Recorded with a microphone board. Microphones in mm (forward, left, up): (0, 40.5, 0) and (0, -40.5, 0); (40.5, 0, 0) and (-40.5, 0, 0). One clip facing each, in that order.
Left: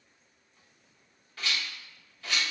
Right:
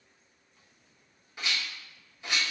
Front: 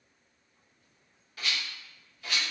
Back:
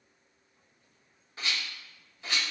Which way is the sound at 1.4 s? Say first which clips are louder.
Even, even; 145° right.